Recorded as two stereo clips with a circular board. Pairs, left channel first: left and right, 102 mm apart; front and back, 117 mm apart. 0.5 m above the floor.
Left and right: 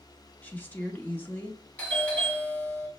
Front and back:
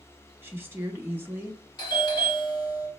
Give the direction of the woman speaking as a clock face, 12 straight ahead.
7 o'clock.